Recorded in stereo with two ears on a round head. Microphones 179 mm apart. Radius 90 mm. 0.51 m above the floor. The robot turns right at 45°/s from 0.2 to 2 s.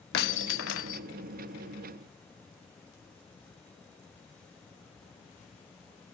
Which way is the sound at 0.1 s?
55° left.